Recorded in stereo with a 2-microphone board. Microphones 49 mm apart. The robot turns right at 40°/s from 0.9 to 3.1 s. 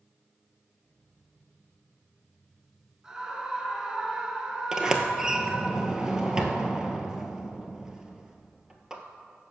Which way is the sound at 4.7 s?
15° right (ahead or behind).